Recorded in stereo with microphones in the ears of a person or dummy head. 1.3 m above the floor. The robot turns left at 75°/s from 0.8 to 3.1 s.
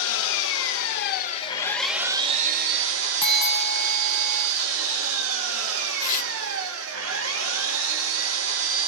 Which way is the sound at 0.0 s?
80° left.